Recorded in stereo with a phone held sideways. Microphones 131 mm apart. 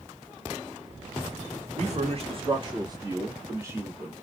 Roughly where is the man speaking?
Right.